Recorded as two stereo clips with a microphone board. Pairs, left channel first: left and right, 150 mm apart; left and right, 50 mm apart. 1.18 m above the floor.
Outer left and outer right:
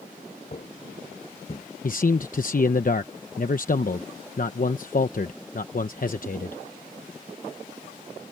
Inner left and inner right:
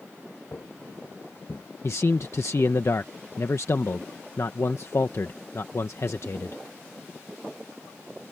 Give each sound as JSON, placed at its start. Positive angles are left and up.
{"t": 0.5, "sound": "footsteps", "side_deg": 45}
{"t": 1.8, "sound": "a man speaking", "side_deg": 65}